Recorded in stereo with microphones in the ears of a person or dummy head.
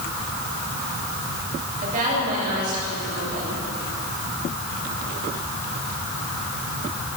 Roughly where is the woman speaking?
Right.